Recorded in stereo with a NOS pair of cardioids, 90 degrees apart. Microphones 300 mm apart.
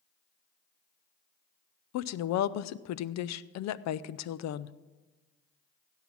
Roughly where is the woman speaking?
Ahead left.